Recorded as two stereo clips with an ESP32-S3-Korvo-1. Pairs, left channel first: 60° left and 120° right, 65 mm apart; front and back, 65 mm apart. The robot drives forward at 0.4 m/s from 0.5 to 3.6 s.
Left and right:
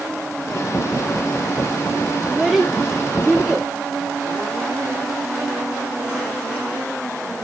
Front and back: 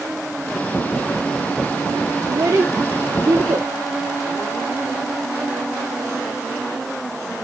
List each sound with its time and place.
2.3 s a child speaking: 155° left, 1.2 m; by 3.7 s 160° left, 1.7 m